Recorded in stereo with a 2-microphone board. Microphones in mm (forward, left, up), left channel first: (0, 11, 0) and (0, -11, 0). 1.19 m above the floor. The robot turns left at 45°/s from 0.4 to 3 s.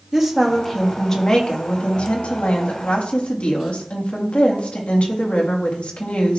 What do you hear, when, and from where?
0.1 s a woman speaking: 165° right, 2.5 m; by 6.4 s 75° left, 2.5 m